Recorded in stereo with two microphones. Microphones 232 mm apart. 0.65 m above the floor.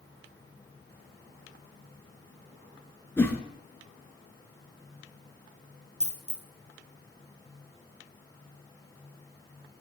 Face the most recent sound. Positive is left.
turn(degrees=-30)  # may be behind; listen again after turning